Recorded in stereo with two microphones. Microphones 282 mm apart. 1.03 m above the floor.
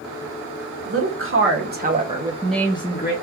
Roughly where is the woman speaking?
Right.